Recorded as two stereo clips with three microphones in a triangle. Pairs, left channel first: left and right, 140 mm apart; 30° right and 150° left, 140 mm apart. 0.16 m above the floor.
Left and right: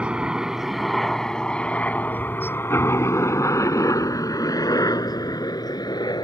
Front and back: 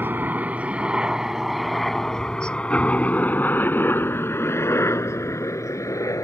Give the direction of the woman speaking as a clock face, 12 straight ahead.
No woman speaking in this recording.